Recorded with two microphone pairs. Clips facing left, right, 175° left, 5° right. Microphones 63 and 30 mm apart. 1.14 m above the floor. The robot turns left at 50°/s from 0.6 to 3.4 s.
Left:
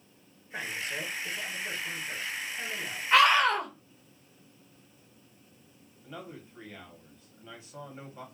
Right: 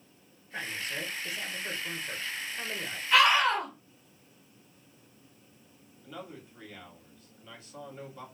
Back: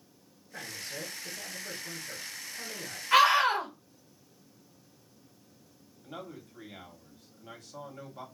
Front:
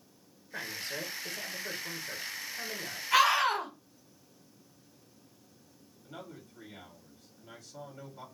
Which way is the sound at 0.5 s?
15° left.